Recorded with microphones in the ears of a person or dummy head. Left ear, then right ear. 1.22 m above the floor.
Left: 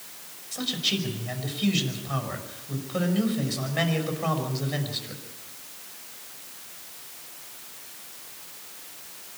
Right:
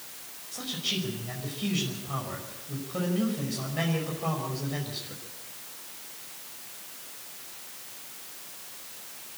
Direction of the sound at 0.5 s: 25° left (ahead or behind).